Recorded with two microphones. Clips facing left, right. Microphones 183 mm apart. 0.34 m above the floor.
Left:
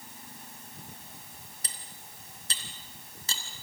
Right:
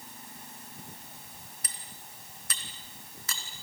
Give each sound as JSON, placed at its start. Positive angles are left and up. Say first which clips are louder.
{"t": 1.6, "sound": "cutlery clinking", "louder": "even", "side_deg": 30, "distance_m": 2.5}